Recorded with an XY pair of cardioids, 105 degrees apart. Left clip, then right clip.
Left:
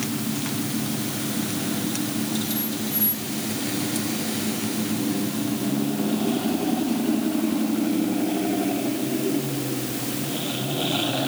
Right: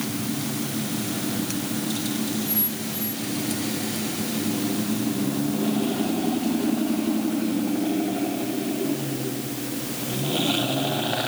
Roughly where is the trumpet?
No trumpet in this recording.